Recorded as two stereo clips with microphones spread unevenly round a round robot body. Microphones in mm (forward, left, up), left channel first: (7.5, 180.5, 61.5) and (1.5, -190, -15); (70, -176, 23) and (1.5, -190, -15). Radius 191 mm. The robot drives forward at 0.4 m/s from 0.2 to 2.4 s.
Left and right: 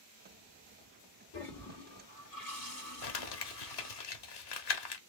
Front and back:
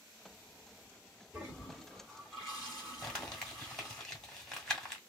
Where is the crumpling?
120° left, 0.8 m.